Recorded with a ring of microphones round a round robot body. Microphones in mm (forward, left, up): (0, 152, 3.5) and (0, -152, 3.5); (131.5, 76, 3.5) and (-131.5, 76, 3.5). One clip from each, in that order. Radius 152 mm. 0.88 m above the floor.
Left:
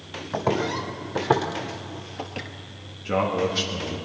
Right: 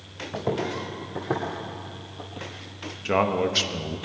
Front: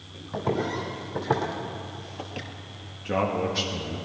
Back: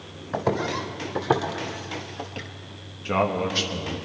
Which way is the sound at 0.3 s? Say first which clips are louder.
Left 4 dB, back 3 dB; 145° left.